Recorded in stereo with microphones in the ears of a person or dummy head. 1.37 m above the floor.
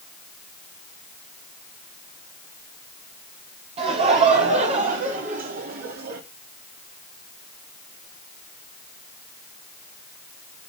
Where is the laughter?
30° right (ahead or behind), 3.5 m; by 6.2 s 50° right (ahead or behind), 3 m.